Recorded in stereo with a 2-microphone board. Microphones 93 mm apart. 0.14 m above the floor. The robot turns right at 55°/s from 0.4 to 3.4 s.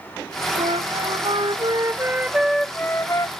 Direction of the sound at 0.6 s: 105° right.